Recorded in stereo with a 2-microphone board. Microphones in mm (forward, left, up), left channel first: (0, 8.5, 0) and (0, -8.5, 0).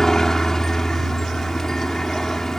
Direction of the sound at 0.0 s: 30° left (ahead or behind).